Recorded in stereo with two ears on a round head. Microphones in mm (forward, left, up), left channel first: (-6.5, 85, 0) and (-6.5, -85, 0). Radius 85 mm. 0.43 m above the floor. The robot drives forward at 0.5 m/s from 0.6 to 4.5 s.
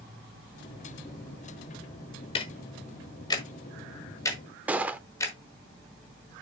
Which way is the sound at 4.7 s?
10° right (ahead or behind).